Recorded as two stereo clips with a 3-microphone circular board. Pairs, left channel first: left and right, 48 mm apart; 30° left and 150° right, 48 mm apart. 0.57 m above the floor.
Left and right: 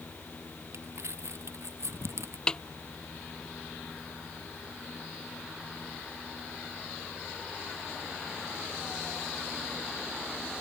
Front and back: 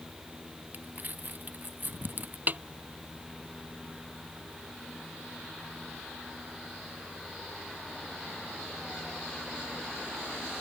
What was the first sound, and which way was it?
Crumpling, 100° right.